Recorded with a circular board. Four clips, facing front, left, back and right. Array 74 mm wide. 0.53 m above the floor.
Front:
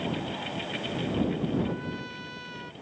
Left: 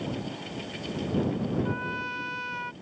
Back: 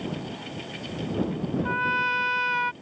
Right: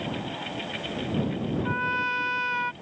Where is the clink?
I don't hear a clink.